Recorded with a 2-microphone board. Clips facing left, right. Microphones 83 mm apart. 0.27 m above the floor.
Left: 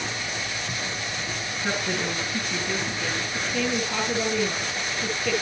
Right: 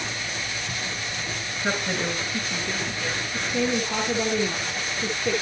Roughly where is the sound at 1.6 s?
Centre.